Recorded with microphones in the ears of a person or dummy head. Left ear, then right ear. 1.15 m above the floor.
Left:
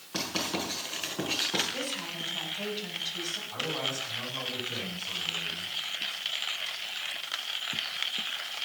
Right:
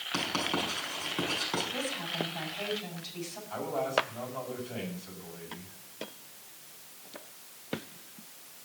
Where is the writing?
80° right, 6.5 m.